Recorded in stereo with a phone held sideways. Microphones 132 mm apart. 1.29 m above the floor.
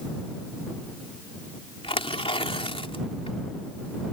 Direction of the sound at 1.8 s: 45° left (ahead or behind).